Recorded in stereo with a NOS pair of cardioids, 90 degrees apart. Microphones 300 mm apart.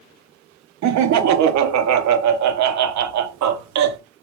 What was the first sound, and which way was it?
Laughter, 65° right.